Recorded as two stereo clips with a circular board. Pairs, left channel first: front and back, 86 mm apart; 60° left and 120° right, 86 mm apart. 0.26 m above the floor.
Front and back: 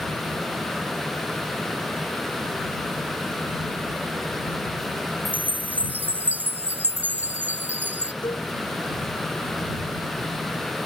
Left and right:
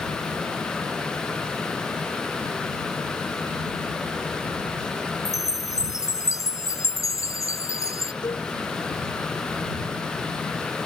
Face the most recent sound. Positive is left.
turn(degrees=30)